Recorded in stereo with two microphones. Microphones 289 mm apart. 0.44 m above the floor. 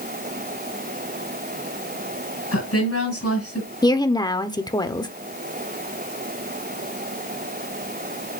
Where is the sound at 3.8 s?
15° left (ahead or behind), 0.9 m.